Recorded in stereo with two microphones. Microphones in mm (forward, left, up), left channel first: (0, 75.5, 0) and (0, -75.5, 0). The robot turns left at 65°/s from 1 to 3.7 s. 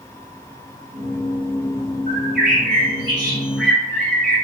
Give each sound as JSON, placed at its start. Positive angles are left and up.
{"t": 2.1, "sound": "a bird", "azimuth_deg": -80, "distance_m": 1.2}